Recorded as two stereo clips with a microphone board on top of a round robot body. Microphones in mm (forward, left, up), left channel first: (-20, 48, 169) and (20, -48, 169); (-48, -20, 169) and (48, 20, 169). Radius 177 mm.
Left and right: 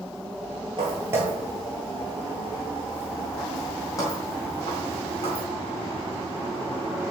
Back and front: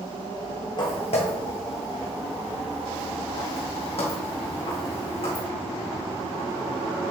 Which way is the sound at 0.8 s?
110° right.